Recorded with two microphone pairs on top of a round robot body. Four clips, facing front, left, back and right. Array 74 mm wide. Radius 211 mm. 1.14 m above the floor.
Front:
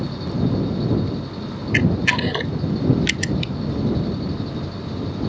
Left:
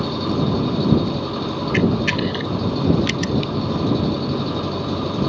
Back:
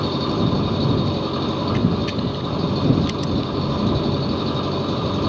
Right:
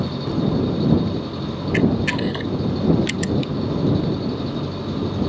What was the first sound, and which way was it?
An engine running, 145° left.